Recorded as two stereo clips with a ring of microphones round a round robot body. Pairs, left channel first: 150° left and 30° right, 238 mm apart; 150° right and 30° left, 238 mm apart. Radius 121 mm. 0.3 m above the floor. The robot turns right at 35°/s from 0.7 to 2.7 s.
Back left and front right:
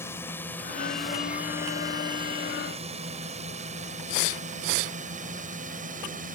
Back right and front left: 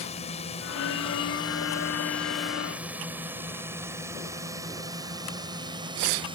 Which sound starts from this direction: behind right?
A drone, at 0.0 s.